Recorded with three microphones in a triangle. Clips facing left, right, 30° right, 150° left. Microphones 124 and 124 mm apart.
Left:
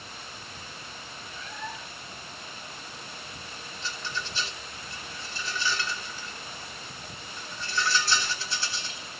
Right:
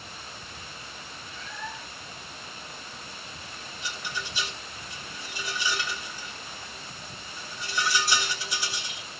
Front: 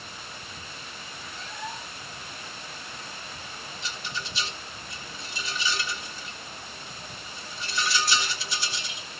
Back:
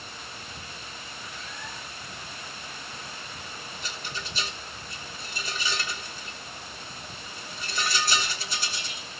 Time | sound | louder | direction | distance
1.3 | a cat meowing | even, front 7 dB | 20° left | 2.0 m
3.8 | a rattle | even, front 2 dB | 165° right | 2.5 m